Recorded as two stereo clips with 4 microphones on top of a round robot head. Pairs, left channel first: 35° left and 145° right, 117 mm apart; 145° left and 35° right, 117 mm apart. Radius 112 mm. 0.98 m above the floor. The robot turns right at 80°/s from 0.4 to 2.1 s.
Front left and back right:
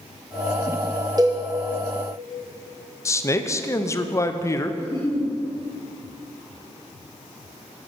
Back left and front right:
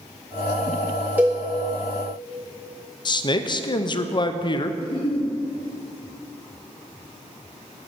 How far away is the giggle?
About 3 m.